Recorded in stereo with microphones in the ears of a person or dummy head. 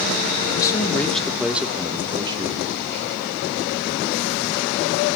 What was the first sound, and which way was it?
A man speaking, 30° left (ahead or behind).